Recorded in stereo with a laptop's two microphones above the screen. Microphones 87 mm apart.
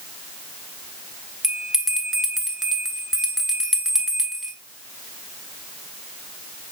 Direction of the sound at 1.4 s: 5° right (ahead or behind).